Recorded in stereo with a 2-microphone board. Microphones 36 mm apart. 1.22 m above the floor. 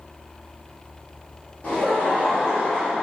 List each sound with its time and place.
1.6 s laughter: 40° left (ahead or behind), 0.8 m; by 3.0 s 15° left (ahead or behind), 1.6 m